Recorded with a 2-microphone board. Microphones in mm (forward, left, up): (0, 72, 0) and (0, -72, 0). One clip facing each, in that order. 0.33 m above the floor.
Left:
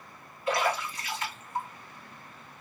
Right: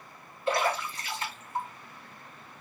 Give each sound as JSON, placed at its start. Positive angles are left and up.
{"t": 0.5, "sound": "a splash", "side_deg": -25, "distance_m": 1.6}